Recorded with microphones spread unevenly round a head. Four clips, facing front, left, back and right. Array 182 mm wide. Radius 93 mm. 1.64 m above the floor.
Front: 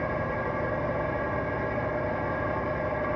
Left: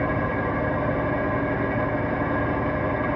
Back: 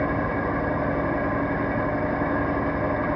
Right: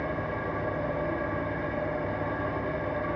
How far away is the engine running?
About 1.5 m.